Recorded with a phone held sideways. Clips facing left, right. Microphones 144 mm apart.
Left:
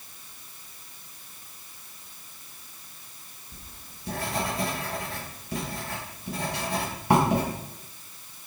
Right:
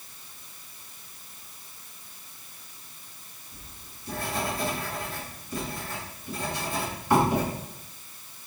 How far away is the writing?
About 5.5 m.